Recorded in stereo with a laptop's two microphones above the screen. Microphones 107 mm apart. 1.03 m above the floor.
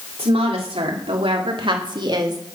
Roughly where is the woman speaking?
Right.